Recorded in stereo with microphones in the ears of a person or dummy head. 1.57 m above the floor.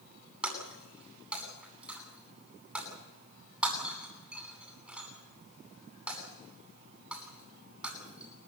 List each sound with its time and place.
0.4 s breaking glass: 5° right (ahead or behind), 9.5 m